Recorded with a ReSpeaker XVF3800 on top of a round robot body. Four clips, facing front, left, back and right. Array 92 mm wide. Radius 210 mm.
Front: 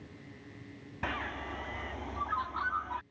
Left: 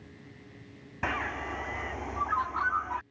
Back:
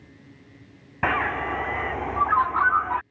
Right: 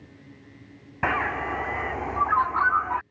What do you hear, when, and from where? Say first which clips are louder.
1.0 s a bird: right 7 dB, back 13 dB; 145° right